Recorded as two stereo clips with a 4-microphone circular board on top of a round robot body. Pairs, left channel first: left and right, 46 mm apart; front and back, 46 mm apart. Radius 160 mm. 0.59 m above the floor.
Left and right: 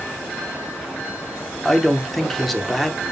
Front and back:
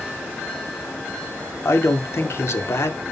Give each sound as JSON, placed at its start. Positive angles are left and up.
{"t": 1.6, "sound": "a man speaking", "azimuth_deg": 5, "distance_m": 2.5}